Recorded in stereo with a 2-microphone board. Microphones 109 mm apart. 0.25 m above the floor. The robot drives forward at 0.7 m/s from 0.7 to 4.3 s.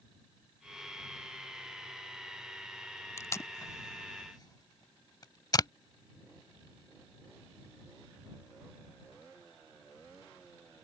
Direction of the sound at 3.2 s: 25° left (ahead or behind).